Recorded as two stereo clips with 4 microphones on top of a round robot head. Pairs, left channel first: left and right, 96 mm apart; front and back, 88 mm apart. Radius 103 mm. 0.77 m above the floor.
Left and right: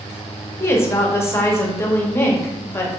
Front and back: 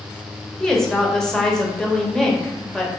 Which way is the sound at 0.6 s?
75° left.